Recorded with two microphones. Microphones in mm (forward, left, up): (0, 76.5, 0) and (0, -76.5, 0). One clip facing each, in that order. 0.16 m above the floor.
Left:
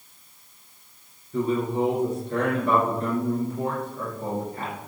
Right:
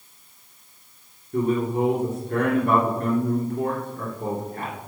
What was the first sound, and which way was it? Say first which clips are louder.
A man speaking: right 2 dB; 55° right (ahead or behind).